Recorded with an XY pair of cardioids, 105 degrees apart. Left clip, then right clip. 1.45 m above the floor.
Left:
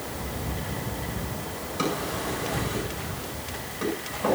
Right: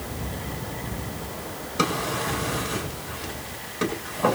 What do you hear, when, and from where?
1.8 s a drawer: 60° right, 7.5 m